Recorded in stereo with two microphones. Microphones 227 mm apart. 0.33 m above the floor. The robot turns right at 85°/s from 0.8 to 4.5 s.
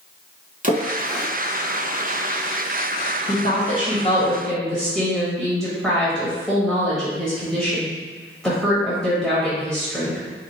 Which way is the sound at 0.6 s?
35° right (ahead or behind).